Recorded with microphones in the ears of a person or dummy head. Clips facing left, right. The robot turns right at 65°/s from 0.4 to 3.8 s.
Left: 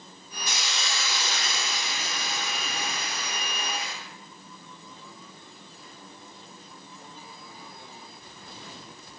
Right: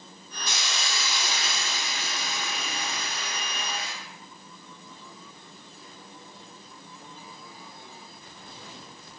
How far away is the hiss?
About 4 m.